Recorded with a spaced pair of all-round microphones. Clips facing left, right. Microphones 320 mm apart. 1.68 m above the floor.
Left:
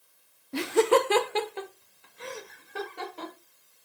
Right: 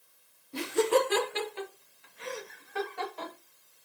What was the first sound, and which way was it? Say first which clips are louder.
Laughter: left 4 dB; 80° left.